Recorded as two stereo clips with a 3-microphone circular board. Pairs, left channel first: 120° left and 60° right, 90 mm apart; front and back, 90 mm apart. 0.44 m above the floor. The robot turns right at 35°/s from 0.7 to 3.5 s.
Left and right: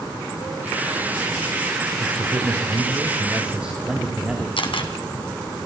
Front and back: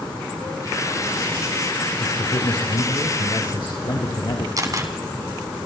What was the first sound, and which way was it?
A man speaking, 35° right.